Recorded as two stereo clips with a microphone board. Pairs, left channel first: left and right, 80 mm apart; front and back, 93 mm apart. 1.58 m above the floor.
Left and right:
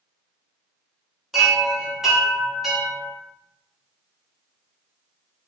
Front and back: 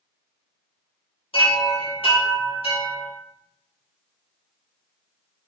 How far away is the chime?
About 2.5 m.